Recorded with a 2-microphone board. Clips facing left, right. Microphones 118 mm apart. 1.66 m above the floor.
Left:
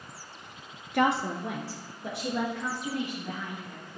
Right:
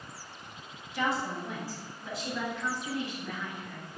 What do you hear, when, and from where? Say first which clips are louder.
0.9 s a woman speaking: left 6 dB; 55° left (ahead or behind), 0.5 m; by 3.9 s 50° left (ahead or behind), 2.5 m